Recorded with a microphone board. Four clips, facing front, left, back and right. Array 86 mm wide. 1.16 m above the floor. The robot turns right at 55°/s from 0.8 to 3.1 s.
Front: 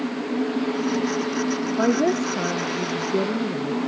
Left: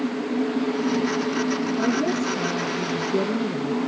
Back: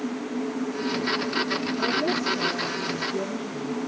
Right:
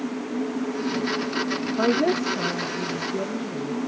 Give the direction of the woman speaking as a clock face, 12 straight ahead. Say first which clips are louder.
Right 5 dB, front 7 dB; 1 o'clock.